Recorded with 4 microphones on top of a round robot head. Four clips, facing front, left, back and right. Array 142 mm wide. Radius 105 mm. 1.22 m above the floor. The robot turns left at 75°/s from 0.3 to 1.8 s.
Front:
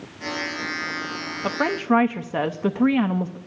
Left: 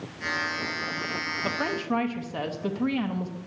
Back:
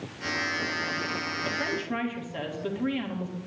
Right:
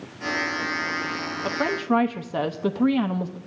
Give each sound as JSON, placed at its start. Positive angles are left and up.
{"t": 1.4, "sound": "a woman speaking", "azimuth_deg": -5, "distance_m": 0.8}